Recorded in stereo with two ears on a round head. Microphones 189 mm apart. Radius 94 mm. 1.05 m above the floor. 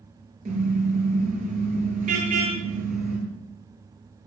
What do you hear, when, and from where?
0.5 s a car horn: 40° right (ahead or behind), 8 m